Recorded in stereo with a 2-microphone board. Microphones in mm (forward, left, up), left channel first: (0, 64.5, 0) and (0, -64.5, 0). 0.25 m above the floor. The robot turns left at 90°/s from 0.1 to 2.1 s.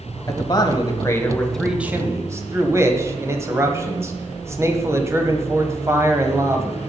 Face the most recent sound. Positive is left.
turn(degrees=-45)